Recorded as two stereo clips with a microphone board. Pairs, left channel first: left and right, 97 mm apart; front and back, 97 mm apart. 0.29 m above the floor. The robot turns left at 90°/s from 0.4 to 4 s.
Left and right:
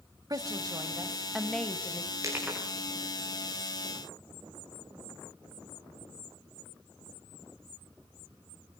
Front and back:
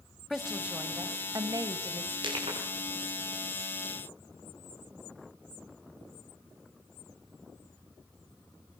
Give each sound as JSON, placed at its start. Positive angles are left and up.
{"t": 0.3, "sound": "a woman speaking", "azimuth_deg": -90, "distance_m": 1.8}
{"t": 2.2, "sound": "crushing", "azimuth_deg": -145, "distance_m": 8.5}